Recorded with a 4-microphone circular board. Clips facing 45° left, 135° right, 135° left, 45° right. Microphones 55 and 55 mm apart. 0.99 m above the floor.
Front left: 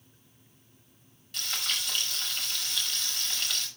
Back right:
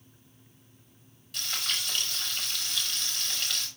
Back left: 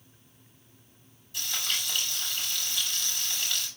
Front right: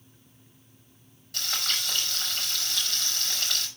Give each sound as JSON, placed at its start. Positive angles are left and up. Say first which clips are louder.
{"t": 1.3, "sound": "frying", "louder": "even, front right 2 dB", "azimuth_deg": -45, "distance_m": 5.0}